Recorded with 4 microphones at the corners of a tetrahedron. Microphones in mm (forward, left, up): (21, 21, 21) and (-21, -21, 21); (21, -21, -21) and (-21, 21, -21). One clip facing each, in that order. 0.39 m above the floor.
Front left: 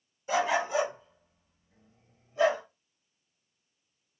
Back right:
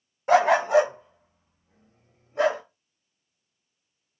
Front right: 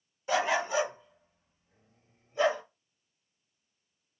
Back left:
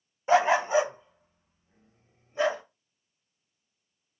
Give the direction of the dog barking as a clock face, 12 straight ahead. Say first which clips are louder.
Back right 9 dB, back left 6 dB; 6 o'clock.